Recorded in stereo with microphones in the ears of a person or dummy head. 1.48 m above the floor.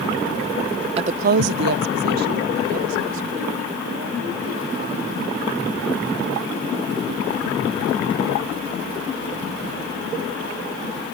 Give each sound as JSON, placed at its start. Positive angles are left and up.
{"t": 1.0, "sound": "a woman speaking", "side_deg": -35}